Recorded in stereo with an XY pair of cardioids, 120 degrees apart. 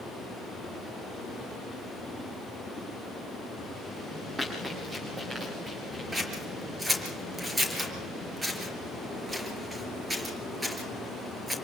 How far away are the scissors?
About 5 m.